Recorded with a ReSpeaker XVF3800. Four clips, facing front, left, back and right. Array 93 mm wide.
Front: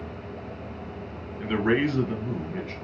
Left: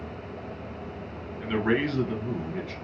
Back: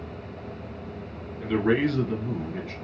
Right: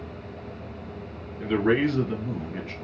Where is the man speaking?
10° left, 1.2 m; by 2.7 s 80° right, 1.2 m.